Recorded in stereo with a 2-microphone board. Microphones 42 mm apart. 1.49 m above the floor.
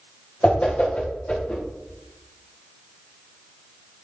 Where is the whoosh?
35° left (ahead or behind), 1.4 m.